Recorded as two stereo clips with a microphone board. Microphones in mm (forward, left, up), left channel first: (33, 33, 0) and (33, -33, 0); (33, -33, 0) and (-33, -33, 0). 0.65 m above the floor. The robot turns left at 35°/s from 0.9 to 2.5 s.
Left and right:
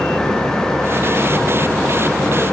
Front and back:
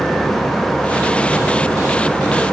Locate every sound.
Only background noise.